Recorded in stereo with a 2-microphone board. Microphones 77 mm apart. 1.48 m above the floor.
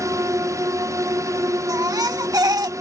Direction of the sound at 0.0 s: 45° right (ahead or behind).